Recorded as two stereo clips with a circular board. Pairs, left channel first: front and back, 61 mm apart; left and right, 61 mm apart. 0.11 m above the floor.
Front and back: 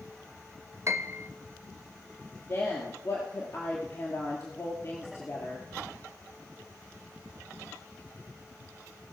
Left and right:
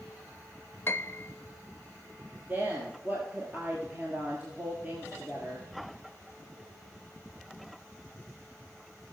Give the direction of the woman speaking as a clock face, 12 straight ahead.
1 o'clock.